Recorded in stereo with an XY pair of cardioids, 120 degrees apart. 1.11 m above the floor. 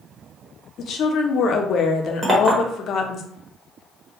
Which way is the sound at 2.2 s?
20° right.